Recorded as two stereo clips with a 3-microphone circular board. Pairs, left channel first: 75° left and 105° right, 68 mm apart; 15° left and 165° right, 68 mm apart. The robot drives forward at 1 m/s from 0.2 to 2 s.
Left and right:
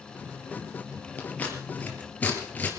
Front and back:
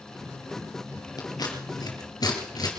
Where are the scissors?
10° left, 4 m.